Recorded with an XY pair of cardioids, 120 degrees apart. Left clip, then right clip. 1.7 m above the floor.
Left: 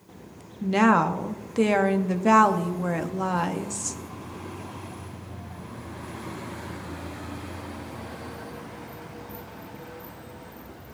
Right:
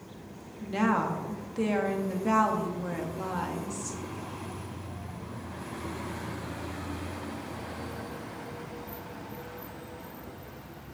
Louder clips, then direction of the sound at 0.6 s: Left 7 dB; 50° left.